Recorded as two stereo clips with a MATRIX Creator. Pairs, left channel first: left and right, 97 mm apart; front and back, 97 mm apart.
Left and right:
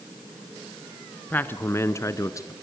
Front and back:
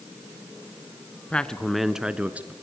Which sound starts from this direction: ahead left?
A man speaking, at 1.3 s.